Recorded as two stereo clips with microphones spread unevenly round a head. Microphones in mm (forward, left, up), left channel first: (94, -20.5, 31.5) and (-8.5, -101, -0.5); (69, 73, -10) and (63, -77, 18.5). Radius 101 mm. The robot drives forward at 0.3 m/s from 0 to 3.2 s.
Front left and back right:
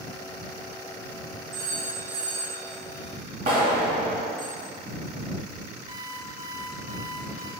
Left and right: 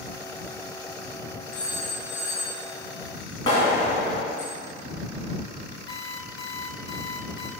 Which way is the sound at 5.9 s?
145° left.